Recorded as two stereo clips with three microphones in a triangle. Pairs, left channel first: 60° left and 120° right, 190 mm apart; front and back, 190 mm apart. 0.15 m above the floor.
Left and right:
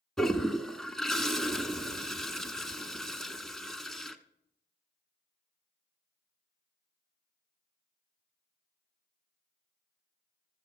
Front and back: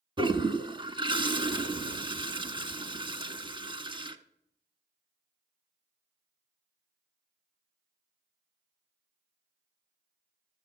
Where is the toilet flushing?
145° left, 0.8 m.